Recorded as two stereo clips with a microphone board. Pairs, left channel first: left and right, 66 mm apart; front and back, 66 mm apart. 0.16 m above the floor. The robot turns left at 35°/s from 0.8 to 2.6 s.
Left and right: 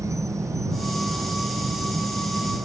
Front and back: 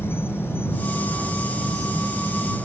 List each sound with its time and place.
0.0 s an insect: 55° right; by 2.7 s 115° right